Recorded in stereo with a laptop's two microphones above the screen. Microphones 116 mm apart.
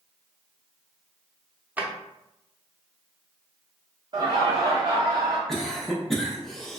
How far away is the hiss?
I don't hear a hiss.